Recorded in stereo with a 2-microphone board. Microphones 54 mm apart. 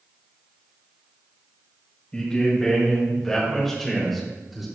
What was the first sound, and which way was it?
A man speaking, 15° left (ahead or behind).